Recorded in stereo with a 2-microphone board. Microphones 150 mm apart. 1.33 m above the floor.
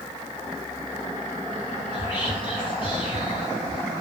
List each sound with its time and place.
1.9 s whispering: 40° left (ahead or behind), 0.8 m